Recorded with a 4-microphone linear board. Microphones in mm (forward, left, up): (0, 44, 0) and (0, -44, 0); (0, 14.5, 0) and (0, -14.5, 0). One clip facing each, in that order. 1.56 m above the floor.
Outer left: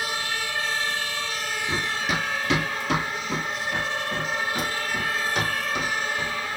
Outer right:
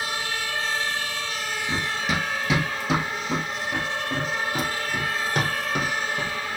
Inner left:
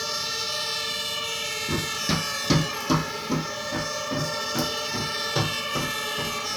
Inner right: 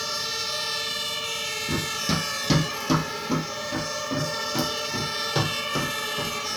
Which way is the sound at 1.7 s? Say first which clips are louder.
Even, even; 5° left (ahead or behind).